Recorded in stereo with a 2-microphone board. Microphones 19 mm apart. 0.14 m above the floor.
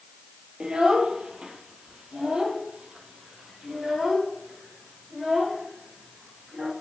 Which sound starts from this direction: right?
A child speaking, at 0.6 s.